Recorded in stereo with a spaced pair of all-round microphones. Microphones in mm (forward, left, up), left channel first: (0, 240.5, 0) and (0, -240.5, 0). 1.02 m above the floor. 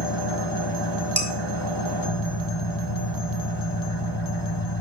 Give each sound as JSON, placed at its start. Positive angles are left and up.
{"t": 0.0, "sound": "an engine running", "side_deg": 50, "distance_m": 2.0}
{"t": 1.2, "sound": "dishes clattering", "side_deg": -20, "distance_m": 3.5}